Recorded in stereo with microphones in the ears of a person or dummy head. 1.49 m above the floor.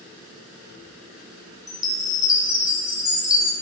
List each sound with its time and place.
1.7 s a chime: 15° left (ahead or behind), 0.6 m